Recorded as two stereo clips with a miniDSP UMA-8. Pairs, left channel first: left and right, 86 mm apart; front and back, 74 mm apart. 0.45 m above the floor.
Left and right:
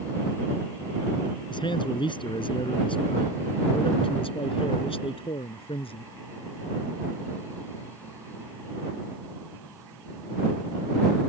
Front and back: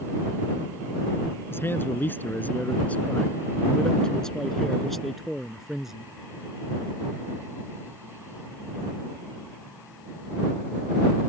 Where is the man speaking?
60° left; by 6.1 s 95° left.